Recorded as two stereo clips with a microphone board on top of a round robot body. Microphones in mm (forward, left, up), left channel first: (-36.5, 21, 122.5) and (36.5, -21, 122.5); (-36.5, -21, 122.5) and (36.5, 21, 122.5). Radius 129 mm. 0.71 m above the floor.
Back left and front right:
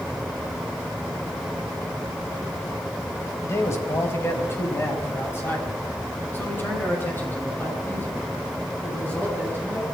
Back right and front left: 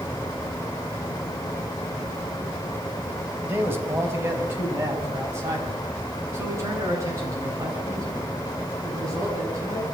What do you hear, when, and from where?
3.4 s a man speaking: 95° left, 4.5 m; by 9.8 s 80° left, 12 m